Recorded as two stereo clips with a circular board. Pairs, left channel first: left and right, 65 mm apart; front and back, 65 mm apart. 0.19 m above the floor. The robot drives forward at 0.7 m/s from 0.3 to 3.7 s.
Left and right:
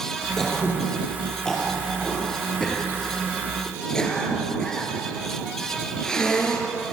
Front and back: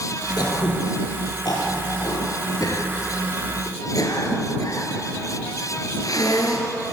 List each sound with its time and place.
0.4 s throat clearing: 5° left, 6 m; by 6.7 s 10° left, 3.5 m